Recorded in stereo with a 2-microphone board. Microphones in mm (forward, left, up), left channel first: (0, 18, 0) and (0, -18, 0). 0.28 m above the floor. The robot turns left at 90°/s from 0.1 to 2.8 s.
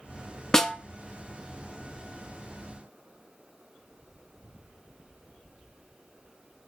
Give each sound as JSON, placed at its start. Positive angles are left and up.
{"t": 0.5, "sound": "a snare drum", "side_deg": 15, "distance_m": 0.5}